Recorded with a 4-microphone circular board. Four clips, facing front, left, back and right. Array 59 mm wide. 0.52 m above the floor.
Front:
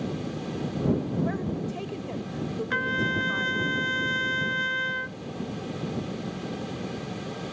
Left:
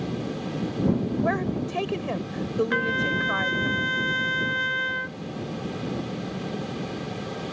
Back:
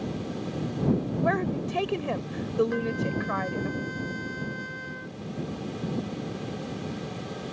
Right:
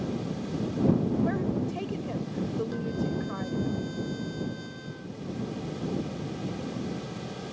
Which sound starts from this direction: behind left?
A woman speaking, at 1.2 s.